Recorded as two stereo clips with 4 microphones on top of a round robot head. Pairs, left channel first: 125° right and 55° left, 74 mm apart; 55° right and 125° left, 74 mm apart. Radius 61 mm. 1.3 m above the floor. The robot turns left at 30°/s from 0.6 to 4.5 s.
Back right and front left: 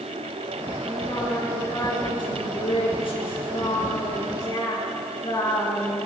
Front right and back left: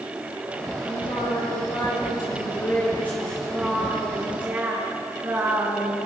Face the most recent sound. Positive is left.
turn(degrees=-165)